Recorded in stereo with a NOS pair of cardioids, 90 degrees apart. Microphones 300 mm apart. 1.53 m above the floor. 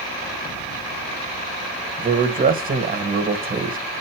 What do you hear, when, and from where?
2.0 s a man speaking: 30° right, 1.4 m